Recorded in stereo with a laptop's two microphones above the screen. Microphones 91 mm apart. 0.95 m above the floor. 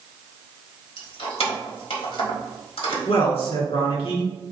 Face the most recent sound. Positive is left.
turn(degrees=75)  # may be behind; listen again after turning